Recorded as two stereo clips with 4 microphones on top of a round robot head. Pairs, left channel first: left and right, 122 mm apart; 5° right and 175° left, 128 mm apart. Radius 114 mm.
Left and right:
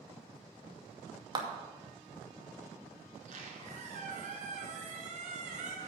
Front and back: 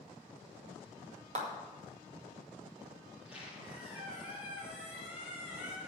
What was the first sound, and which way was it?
A clap, 145° right.